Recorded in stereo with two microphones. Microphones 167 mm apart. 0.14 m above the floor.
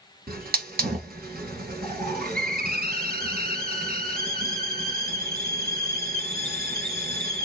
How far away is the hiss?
About 1.6 m.